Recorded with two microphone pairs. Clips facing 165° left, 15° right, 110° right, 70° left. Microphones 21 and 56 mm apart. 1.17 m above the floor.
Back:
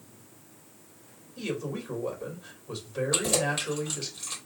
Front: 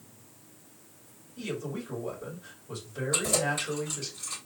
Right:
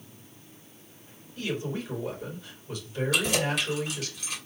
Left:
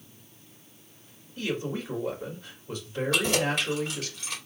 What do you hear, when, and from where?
1.4 s a man speaking: 130° left, 3 m
3.1 s keys jangling: 120° left, 3 m